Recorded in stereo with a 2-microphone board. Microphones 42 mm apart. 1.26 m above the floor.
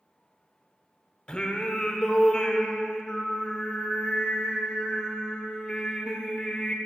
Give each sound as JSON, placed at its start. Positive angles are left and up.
{"t": 1.3, "sound": "singing", "side_deg": 20, "distance_m": 0.9}